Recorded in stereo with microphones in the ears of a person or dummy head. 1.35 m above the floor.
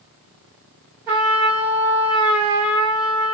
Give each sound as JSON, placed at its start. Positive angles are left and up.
{"t": 1.1, "sound": "a trumpet", "side_deg": -10, "distance_m": 1.0}